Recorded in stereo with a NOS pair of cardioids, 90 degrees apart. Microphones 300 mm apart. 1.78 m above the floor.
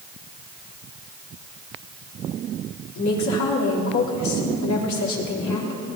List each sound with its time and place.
3.0 s a woman speaking: 65° left, 4 m